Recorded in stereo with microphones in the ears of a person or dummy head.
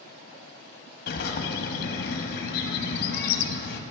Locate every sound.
1.1 s a bird: 55° left (ahead or behind), 0.9 m